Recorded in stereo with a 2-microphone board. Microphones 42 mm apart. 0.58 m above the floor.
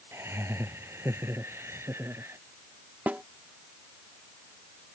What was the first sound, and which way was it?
Laughter, 85° right.